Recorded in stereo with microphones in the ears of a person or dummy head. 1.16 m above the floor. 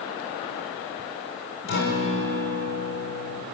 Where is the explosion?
No explosion in this recording.